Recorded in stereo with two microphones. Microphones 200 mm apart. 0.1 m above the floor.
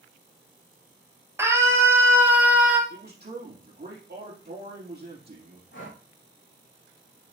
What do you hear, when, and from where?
1.4 s a scream: 15° right (ahead or behind), 2 m; by 2.8 s 5° right (ahead or behind), 1.7 m
2.9 s a man speaking: 55° right (ahead or behind), 3 m
5.7 s breathing: 75° left (ahead or behind), 4 m